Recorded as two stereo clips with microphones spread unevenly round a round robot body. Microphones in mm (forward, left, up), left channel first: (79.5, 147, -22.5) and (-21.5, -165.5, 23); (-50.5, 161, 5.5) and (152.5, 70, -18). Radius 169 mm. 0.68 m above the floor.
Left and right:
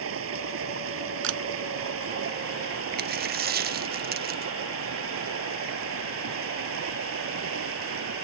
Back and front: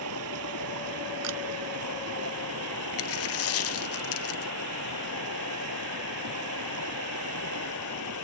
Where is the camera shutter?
60° right.